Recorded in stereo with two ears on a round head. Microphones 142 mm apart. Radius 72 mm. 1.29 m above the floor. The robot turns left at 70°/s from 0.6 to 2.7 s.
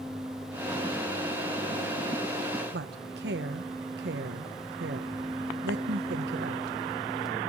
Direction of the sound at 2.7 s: 75° right (ahead or behind).